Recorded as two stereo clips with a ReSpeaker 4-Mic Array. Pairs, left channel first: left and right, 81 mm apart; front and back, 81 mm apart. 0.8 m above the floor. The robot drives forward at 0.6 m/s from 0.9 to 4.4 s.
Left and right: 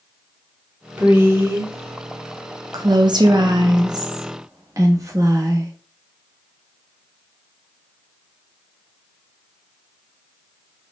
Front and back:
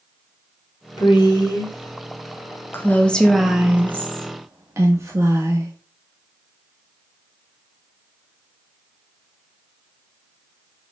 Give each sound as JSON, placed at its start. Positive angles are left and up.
{"t": 1.0, "sound": "a woman speaking", "azimuth_deg": -25, "distance_m": 1.6}